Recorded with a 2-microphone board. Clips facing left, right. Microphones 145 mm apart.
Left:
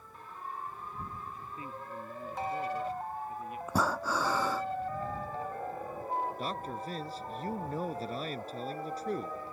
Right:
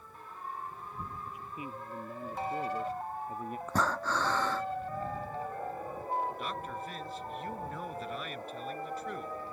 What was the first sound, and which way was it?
A man speaking, 10° right (ahead or behind).